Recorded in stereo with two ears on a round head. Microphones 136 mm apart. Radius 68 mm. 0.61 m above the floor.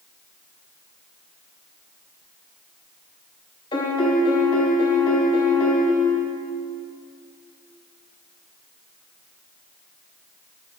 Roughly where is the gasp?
I don't hear a gasp.